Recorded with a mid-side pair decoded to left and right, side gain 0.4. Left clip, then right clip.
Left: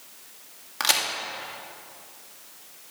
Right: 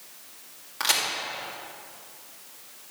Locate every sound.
0.8 s a crack: 35° left, 2 m